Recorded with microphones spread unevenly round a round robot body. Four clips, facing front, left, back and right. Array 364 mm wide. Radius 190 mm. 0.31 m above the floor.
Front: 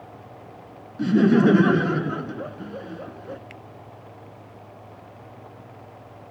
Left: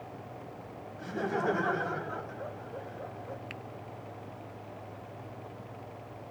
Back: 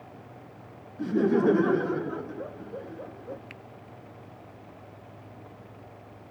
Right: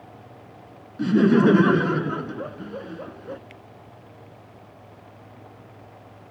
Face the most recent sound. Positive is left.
turn(degrees=90)